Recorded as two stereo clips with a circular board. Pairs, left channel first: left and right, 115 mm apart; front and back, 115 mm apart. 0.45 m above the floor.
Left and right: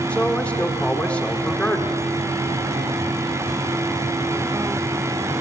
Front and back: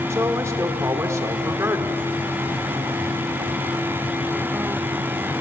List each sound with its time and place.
0.1 s a man speaking: 155° left, 1.4 m